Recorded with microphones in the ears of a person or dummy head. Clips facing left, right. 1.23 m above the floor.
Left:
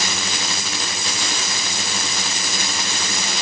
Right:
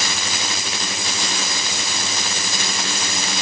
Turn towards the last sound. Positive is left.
No sound to turn to.